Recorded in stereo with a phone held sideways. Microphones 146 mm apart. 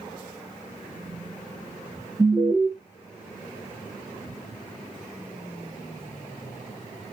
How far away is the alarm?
About 0.9 m.